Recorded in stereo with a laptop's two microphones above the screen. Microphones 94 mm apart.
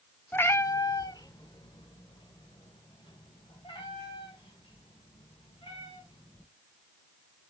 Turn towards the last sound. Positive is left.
turn(degrees=70)  # may be behind; listen again after turning